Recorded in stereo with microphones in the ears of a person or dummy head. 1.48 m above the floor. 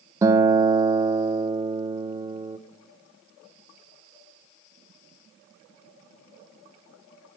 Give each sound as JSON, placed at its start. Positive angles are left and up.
{"t": 0.2, "sound": "a guitar", "side_deg": -15, "distance_m": 1.0}